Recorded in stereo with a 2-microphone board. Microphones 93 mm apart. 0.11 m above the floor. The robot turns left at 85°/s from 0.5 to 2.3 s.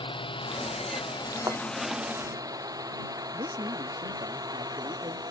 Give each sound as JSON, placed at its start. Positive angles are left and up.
{"t": 0.0, "sound": "a drone", "side_deg": 65}
{"t": 1.5, "sound": "a thud", "side_deg": -40}
{"t": 3.3, "sound": "a man speaking", "side_deg": -65}